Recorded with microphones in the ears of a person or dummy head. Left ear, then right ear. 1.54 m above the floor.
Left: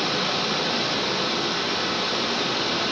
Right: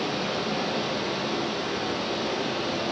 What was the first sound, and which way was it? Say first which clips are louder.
Running water: left 5 dB; 60° left (ahead or behind).